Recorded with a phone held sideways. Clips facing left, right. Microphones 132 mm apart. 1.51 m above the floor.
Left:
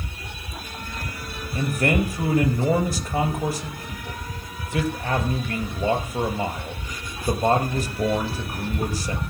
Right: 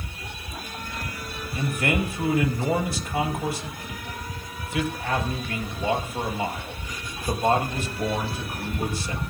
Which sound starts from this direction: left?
A man speaking, at 1.6 s.